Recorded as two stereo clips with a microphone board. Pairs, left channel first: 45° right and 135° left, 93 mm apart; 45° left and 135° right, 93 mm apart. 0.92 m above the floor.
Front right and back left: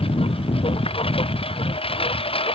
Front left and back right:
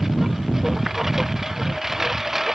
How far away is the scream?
I don't hear a scream.